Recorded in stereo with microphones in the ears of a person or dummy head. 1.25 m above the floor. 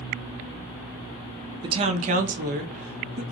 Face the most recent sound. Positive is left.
turn(degrees=-40)  # may be behind; listen again after turning